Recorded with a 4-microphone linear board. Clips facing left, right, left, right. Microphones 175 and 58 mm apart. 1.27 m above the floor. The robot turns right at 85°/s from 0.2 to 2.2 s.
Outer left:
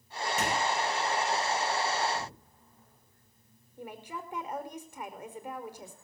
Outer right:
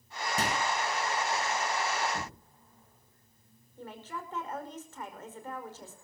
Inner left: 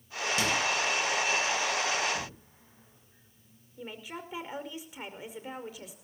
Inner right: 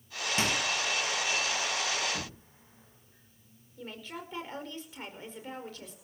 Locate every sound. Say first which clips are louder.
0.4 s a microwave: outer left 1 dB, inner left 1 dB; 40° right (ahead or behind), 9.5 m; by 0.6 s 60° right (ahead or behind), 9.5 m
2.1 s knocking: outer left 1 dB, inner left 2 dB; 45° right (ahead or behind), 6.5 m; by 2.5 s 40° right (ahead or behind), 6.5 m
3.8 s a woman speaking: outer left 1 dB, inner left 1 dB; 15° left (ahead or behind), 5 m